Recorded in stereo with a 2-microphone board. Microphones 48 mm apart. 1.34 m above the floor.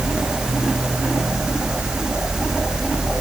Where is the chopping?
I don't hear chopping.